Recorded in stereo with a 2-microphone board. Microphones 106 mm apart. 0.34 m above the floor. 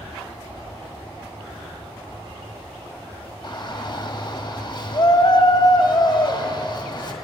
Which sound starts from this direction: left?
A shout, at 3.4 s.